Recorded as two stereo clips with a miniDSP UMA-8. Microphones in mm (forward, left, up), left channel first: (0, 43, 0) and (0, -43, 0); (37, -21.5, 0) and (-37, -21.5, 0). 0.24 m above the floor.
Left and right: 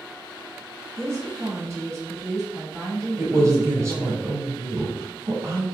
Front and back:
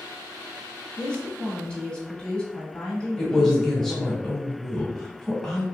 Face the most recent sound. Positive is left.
turn(degrees=-80)